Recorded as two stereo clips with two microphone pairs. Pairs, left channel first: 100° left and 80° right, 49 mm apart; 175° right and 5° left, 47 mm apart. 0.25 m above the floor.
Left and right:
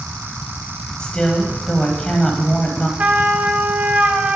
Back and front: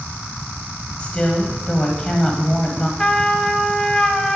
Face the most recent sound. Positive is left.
turn(degrees=-115)